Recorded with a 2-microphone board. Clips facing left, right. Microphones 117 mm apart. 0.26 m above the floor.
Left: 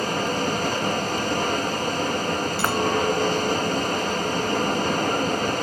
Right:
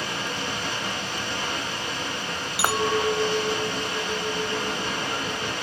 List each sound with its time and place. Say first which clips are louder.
0.0 s running water: left 7 dB; 45° left (ahead or behind), 1.1 m
2.6 s a clink: right 1 dB; 10° right (ahead or behind), 0.9 m